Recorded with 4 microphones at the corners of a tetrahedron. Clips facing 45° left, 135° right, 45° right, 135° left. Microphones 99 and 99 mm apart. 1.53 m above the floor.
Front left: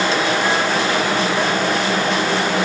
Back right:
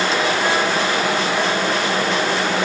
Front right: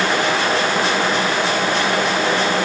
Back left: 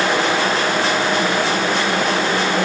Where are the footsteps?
I don't hear footsteps.